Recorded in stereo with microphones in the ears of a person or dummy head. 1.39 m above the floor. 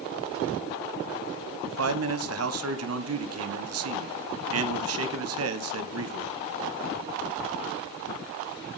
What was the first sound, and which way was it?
A man speaking, 65° right (ahead or behind).